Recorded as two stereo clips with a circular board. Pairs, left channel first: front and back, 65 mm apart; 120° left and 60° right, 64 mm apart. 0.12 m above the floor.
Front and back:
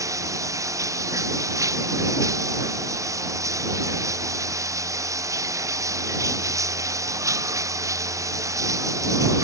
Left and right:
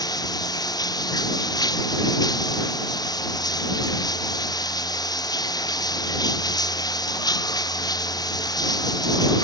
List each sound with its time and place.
0.0 s running water: 140° left